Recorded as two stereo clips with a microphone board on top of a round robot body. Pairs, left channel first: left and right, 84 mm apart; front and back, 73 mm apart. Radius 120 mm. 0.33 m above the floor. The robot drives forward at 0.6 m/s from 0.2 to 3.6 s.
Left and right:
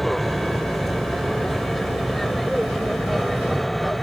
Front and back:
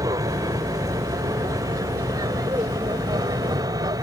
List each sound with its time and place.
0.0 s an aircraft: straight behind